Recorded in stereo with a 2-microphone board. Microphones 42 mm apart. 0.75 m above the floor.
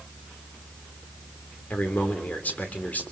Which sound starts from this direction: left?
A man speaking, at 1.7 s.